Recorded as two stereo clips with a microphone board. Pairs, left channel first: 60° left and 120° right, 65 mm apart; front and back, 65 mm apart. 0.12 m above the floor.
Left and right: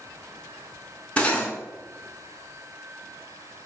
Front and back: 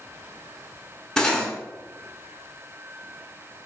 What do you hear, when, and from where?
1.2 s cutlery clinking: 60° left, 0.6 m